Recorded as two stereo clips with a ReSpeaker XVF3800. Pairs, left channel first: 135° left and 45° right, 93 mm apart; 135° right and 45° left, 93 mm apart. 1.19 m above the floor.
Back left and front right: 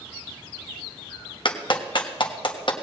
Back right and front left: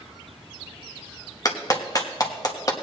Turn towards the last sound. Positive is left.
turn(degrees=170)